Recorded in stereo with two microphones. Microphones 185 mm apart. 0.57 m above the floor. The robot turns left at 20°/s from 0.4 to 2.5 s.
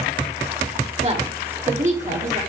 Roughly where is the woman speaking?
Right.